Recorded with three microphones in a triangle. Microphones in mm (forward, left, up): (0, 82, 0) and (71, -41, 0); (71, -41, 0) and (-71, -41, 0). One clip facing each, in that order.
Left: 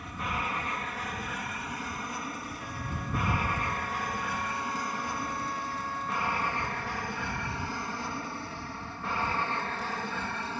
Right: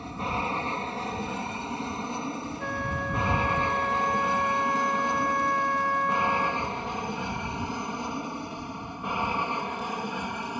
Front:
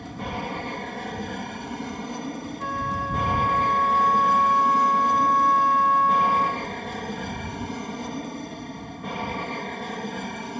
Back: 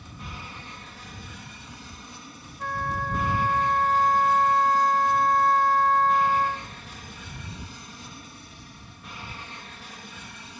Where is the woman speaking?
I don't hear a woman speaking.